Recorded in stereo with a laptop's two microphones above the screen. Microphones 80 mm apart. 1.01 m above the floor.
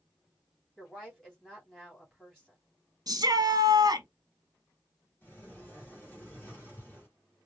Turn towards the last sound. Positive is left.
turn(degrees=25)  # may be behind; listen again after turning